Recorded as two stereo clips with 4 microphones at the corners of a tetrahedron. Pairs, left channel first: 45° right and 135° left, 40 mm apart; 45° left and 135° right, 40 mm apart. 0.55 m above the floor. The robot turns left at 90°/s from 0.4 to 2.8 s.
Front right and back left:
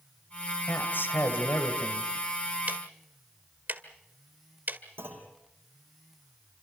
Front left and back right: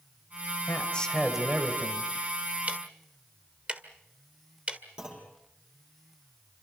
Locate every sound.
0.7 s a man speaking: 5° left, 2.5 m; by 2.1 s 125° right, 2.5 m
2.7 s ticking: 175° left, 1.7 m; by 4.8 s 165° left, 1.7 m
5.0 s a clunk: 155° left, 5 m